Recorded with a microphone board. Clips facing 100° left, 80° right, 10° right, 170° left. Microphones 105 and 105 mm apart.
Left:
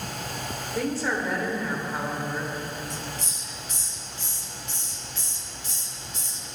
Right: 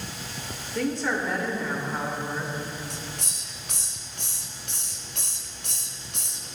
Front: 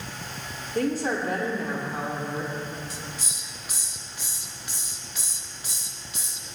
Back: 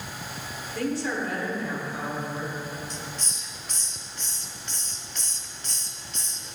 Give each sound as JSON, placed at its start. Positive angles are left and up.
{"t": 0.8, "sound": "a woman speaking", "azimuth_deg": 20, "distance_m": 1.2}
{"t": 2.9, "sound": "a hiss", "azimuth_deg": -95, "distance_m": 0.6}